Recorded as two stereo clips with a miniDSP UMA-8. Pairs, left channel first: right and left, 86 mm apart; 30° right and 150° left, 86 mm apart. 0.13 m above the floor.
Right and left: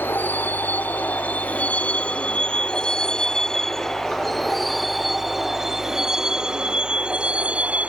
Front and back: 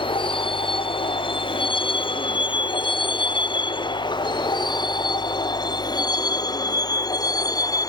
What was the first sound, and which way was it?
A vehicle, 25° right.